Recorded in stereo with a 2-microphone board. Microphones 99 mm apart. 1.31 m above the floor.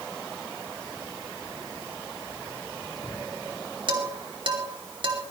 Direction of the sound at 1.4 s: 75° left (ahead or behind).